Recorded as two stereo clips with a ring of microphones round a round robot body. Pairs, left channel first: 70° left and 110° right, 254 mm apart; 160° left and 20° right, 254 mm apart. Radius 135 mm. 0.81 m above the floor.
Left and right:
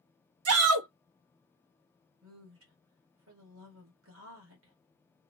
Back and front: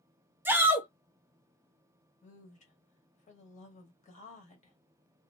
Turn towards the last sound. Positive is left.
turn(degrees=-140)